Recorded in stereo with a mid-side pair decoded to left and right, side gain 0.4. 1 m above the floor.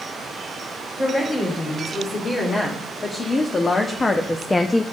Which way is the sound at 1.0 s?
35° left.